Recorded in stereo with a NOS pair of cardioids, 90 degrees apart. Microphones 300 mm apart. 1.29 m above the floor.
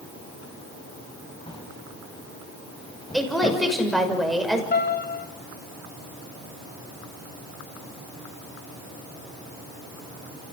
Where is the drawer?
15° left, 5 m.